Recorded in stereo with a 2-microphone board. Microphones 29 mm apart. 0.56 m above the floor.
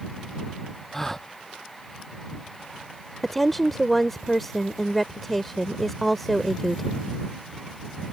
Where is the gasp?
10° left (ahead or behind).